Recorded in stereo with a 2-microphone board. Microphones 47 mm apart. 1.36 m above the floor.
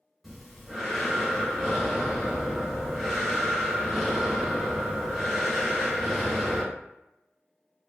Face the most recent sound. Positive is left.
turn(degrees=0)  # may be behind; listen again after turning